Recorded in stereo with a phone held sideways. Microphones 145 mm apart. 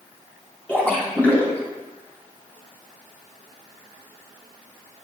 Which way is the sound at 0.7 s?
10° left (ahead or behind).